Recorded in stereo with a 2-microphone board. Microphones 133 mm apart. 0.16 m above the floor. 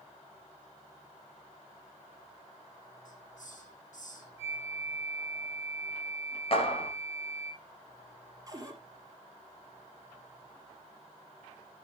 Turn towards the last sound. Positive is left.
turn(degrees=-25)  # may be behind; listen again after turning